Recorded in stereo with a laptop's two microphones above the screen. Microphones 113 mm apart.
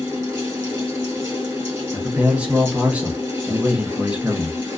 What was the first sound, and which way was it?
A fan, 25° right (ahead or behind).